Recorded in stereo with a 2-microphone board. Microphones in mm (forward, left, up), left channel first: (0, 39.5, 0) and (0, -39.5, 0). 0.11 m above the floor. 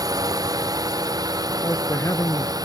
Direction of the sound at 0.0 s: 55° right (ahead or behind).